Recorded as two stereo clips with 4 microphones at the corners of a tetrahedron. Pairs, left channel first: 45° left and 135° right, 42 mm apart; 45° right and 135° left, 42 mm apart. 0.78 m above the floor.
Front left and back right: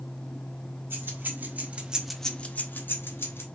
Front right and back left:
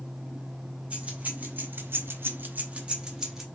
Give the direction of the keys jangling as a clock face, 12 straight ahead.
6 o'clock.